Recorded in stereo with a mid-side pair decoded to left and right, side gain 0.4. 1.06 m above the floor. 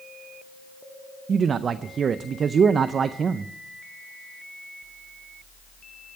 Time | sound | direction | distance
1.3 | a man speaking | 55° right | 0.5 m